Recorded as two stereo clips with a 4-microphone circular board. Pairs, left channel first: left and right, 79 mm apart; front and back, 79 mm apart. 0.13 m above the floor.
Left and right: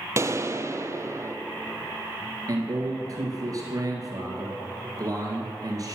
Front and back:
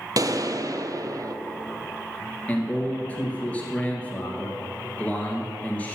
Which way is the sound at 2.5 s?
70° right.